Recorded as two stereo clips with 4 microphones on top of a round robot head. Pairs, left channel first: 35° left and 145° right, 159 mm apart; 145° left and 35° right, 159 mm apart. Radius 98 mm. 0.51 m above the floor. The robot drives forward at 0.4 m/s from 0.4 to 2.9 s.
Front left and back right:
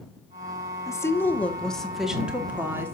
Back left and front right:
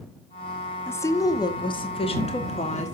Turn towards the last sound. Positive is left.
turn(degrees=150)